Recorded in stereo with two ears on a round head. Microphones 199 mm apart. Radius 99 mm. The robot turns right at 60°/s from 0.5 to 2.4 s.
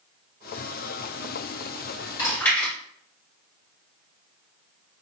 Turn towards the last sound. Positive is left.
turn(degrees=10)  # may be behind; listen again after turning